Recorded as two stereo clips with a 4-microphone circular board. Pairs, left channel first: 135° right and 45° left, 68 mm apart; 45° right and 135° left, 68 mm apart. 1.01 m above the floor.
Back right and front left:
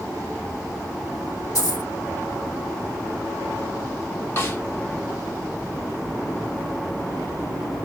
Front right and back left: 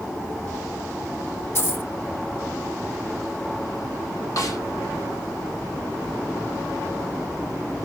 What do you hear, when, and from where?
1.6 s a dropped coin: 105° right, 3 m
4.4 s a snare drum: 80° right, 1.3 m